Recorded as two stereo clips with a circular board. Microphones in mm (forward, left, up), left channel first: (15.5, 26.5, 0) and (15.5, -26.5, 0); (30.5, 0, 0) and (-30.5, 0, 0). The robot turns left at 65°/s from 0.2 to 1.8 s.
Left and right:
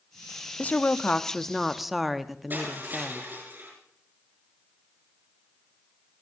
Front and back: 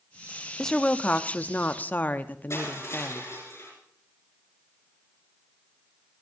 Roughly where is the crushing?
Ahead right.